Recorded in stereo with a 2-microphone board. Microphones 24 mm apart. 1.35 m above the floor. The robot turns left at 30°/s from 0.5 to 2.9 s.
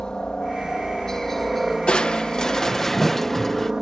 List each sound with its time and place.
0.0 s a helicopter: 40° left; by 3.8 s 35° right
1.9 s crushing: 45° left; by 3.7 s 15° left